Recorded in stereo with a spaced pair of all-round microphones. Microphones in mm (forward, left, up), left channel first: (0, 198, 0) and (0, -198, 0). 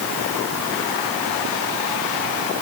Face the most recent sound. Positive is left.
No sound to turn to.